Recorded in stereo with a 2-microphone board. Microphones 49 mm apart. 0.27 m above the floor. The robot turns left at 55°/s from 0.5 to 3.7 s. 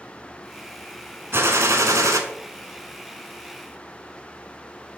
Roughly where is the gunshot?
Ahead right.